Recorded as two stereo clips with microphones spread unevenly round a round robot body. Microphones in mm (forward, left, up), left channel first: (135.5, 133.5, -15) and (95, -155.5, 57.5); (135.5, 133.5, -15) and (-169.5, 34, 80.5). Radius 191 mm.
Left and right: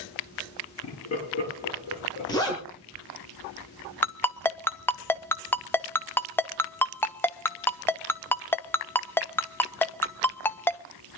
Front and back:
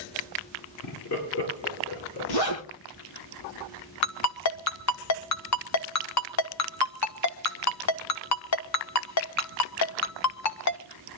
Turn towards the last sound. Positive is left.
turn(degrees=5)